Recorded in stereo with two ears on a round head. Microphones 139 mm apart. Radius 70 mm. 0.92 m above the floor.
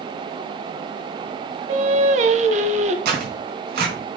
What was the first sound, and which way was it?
Singing, 50° right (ahead or behind).